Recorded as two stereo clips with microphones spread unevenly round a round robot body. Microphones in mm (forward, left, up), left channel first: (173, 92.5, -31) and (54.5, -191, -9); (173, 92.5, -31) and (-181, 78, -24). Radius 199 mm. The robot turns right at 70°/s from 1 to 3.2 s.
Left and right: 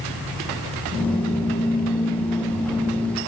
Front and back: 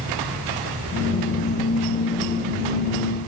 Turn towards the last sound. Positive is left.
No sound to turn to.